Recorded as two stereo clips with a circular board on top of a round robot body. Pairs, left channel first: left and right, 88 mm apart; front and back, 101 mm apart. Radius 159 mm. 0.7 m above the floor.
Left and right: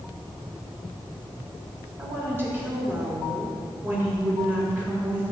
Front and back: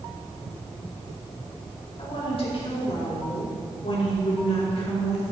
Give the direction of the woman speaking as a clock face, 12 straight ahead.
1 o'clock.